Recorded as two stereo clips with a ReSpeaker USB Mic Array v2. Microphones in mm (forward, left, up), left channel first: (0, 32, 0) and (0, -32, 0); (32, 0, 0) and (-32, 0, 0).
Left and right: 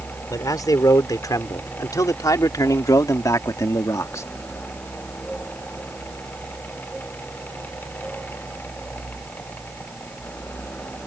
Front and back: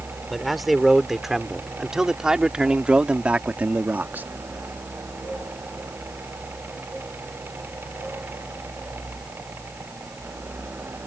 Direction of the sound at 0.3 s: 90° left.